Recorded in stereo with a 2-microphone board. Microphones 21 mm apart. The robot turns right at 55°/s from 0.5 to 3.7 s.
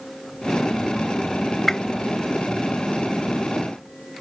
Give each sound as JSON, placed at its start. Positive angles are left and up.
{"t": 1.7, "sound": "a whoosh", "side_deg": 15}